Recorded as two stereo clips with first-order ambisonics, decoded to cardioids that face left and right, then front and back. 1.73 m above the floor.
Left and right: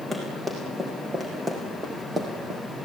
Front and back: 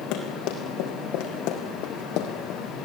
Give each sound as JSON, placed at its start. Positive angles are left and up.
{"t": 0.1, "sound": "running footsteps", "azimuth_deg": -5, "distance_m": 5.5}